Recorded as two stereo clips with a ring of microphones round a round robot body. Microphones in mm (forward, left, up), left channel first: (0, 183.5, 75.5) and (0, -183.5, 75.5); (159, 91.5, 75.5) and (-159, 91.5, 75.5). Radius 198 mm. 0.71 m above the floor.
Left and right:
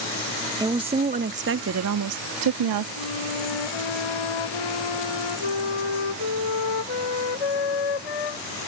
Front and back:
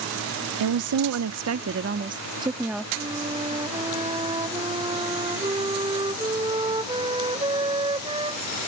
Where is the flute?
105° left.